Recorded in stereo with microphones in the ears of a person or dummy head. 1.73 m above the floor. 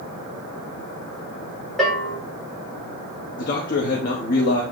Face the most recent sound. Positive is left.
turn(degrees=50)  # may be behind; listen again after turning